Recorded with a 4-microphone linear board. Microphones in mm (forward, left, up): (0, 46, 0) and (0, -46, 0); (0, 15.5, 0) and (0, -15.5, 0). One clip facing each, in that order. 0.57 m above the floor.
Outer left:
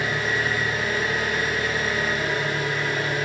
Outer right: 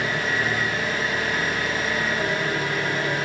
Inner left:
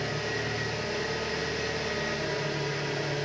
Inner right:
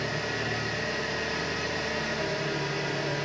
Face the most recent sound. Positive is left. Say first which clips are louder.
# even, inner right 1 dB
turn(degrees=-50)  # may be behind; listen again after turning